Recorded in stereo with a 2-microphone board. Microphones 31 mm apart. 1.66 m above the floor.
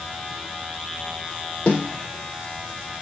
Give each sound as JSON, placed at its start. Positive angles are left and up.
{"t": 1.7, "sound": "a snare drum", "side_deg": 45, "distance_m": 4.0}